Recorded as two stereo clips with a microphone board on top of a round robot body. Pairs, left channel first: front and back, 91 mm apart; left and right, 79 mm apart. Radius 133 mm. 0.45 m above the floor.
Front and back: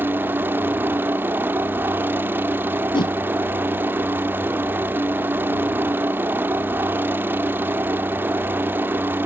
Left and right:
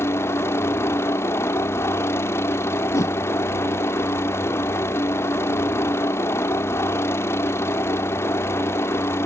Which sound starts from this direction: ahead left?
A whoosh, at 2.9 s.